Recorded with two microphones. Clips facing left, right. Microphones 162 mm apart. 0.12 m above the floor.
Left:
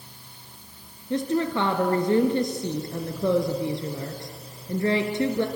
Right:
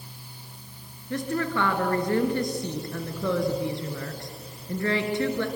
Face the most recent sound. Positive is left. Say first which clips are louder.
# left 3 dB
turn(degrees=25)  # may be behind; listen again after turning